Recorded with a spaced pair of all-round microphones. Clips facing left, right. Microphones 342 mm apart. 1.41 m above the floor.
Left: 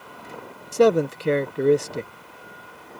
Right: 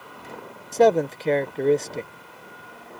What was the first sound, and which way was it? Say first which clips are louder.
A man speaking: left 1 dB; 15° left (ahead or behind).